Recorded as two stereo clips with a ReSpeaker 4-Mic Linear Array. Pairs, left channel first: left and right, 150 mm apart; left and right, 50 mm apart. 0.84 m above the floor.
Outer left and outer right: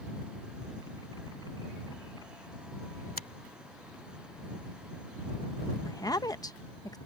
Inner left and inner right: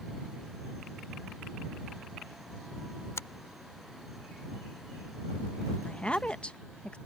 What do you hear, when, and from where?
3.2 s a finger snap: 75° left (ahead or behind)
5.8 s a woman speaking: 25° left (ahead or behind)